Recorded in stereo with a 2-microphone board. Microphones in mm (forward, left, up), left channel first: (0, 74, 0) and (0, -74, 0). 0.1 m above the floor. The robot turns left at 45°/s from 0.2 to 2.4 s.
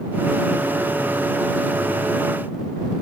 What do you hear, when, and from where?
Only background noise.